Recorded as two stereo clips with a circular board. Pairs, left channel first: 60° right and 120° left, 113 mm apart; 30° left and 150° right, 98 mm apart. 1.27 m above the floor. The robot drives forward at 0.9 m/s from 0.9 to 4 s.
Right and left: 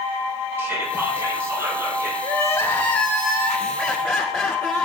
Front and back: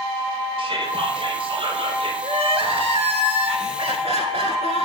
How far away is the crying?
About 1.1 m.